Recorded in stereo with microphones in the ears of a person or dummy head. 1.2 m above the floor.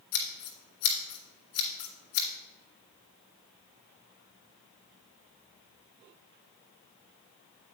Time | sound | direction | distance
0.1 | scissors | 60° left (ahead or behind) | 2 m